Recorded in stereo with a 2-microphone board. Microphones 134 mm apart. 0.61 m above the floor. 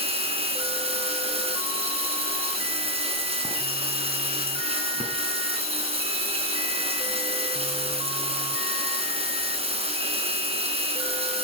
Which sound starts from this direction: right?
Running water, at 0.0 s.